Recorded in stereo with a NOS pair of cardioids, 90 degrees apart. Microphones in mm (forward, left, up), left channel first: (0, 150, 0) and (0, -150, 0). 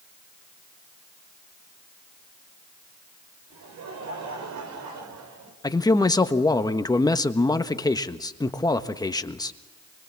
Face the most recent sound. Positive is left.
turn(degrees=15)